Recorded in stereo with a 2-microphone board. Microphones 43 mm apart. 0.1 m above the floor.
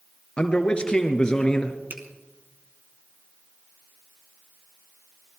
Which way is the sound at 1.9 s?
50° right (ahead or behind).